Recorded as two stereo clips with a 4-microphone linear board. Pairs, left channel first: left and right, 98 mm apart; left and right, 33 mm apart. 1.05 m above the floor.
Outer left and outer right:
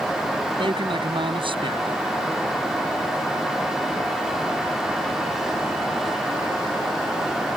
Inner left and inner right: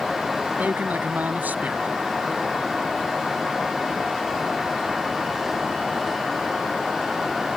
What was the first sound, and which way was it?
A man speaking, 55° right (ahead or behind).